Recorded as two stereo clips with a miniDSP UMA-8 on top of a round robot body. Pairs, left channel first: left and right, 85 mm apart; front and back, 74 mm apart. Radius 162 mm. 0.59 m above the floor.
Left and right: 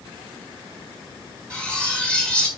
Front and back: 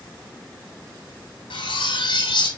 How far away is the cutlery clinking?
About 3 m.